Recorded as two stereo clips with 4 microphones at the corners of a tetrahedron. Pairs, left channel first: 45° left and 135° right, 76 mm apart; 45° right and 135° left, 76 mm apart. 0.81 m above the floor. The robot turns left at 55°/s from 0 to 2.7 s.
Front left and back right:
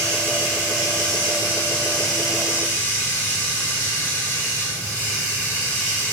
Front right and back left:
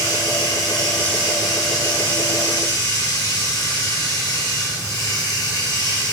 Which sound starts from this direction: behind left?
Running water, at 0.0 s.